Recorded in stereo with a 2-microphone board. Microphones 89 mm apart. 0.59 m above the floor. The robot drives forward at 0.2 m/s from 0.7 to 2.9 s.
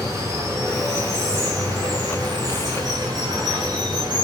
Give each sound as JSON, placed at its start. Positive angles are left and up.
{"t": 0.0, "sound": "running water", "side_deg": -40, "distance_m": 0.8}